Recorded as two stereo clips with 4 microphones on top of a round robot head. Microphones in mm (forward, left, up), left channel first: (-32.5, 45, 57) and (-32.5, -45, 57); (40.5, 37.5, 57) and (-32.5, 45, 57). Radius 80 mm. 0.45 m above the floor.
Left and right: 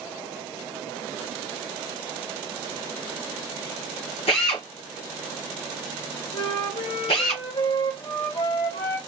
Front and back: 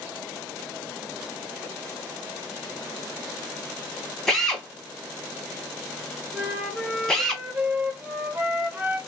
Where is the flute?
100° left, 1.4 m.